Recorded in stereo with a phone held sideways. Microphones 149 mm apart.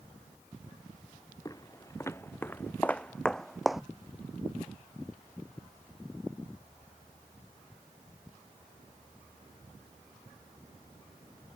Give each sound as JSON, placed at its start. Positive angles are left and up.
{"t": 1.4, "sound": "footsteps", "side_deg": 20}